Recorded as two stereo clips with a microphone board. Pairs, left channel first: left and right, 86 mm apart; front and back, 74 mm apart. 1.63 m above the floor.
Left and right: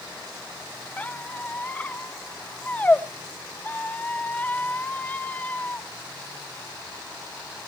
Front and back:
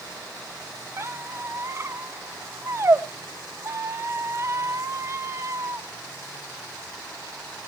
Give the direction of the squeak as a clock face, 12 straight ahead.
7 o'clock.